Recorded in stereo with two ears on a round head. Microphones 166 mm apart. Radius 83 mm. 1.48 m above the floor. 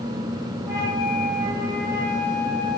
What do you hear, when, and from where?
0.7 s a flute: 15° right (ahead or behind), 4.5 m